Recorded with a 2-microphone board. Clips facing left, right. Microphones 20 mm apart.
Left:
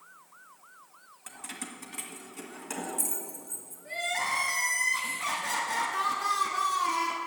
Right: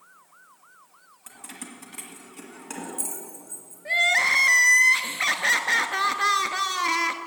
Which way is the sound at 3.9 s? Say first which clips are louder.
Right 10 dB; 60° right (ahead or behind).